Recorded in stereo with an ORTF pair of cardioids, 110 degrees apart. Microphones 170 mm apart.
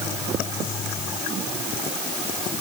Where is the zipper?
I don't hear a zipper.